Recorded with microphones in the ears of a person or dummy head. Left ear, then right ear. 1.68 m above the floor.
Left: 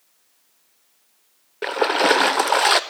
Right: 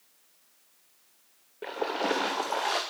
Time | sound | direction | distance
1.6 | a splash | 40° left (ahead or behind) | 0.5 m